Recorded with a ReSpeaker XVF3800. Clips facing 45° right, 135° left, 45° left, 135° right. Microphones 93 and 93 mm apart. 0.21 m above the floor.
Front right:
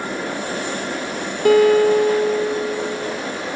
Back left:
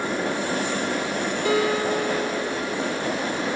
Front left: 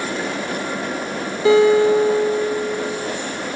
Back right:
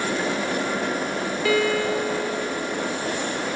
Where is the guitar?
20° right, 1.1 m.